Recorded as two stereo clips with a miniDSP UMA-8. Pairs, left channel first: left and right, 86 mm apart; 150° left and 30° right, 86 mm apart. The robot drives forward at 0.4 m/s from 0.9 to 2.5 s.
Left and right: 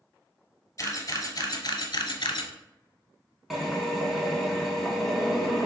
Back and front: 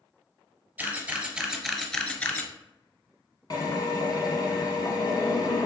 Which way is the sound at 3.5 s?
Straight behind.